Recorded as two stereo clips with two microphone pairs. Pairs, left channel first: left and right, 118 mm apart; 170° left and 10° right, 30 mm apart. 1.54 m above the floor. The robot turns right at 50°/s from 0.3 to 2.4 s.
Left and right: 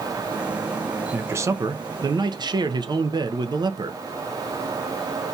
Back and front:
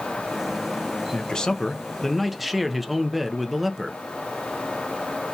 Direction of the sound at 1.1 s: 155° right.